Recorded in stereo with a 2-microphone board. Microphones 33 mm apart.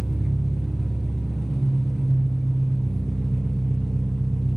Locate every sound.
0.0 s an engine running: centre (ahead or behind), 0.9 m